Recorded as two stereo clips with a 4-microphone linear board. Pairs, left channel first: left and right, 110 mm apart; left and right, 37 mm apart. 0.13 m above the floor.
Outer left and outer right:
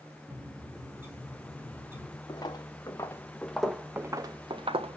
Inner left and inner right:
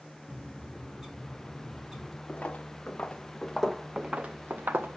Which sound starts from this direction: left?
Footsteps, at 2.3 s.